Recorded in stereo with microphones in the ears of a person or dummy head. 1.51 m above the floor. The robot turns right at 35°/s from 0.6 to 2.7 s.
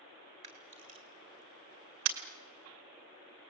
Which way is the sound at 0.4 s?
30° right (ahead or behind).